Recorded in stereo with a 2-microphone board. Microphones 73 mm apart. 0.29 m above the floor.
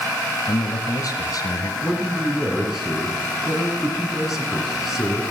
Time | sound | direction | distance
0.5 | a man speaking | 45° left (ahead or behind) | 1.5 m
1.8 | a man speaking | 5° right (ahead or behind) | 3 m